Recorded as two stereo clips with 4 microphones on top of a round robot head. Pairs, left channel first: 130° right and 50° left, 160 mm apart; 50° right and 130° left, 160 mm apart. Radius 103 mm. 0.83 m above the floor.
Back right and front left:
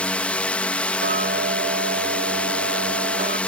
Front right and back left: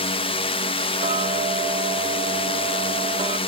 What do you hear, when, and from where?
0.0 s a drone: 50° right
1.0 s ticking: 75° left